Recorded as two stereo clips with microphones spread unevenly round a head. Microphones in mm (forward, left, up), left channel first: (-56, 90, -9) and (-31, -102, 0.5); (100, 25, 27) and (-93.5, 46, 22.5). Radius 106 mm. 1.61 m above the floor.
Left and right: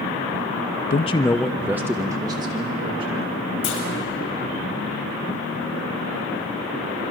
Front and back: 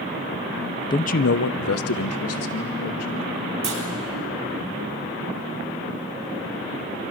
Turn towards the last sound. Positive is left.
turn(degrees=120)